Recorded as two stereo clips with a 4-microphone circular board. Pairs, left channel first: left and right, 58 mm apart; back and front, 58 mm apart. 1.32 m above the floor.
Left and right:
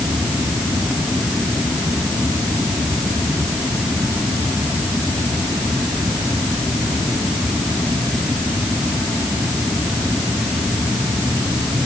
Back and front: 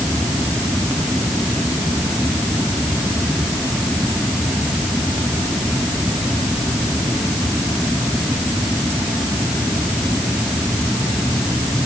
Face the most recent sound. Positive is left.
No sound to turn to.